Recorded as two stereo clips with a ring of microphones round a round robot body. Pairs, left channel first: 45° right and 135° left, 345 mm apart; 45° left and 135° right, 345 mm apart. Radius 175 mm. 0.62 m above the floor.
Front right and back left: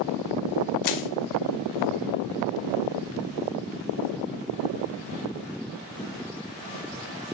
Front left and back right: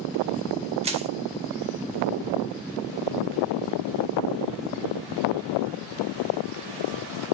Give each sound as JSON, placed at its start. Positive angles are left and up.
{"t": 0.8, "sound": "crushing", "azimuth_deg": -65, "distance_m": 0.9}